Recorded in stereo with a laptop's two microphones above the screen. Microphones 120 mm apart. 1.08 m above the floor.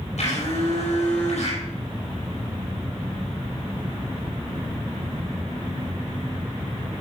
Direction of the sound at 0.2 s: 75° left (ahead or behind).